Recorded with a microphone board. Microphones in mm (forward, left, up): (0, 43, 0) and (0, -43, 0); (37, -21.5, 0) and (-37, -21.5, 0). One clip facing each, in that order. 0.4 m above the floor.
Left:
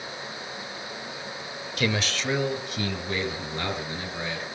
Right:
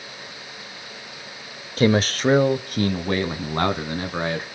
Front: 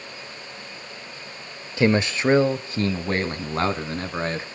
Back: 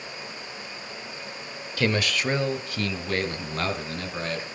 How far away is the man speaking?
About 1.0 m.